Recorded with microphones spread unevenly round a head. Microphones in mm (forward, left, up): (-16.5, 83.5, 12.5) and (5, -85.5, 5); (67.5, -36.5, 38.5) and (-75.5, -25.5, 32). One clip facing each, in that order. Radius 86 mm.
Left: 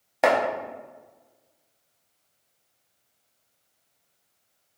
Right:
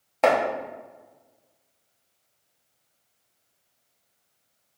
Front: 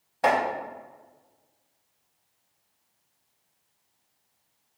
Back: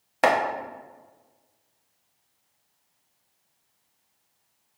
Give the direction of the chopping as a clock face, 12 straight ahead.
6 o'clock.